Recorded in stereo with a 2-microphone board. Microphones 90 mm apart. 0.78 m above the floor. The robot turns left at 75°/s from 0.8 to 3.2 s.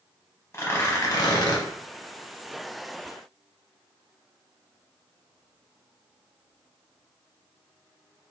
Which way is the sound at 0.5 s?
135° left.